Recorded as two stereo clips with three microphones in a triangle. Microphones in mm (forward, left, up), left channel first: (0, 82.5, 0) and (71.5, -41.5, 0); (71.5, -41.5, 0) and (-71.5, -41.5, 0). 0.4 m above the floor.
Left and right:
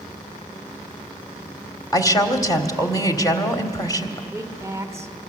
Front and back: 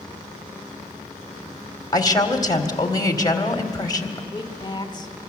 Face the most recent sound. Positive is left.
turn(degrees=-10)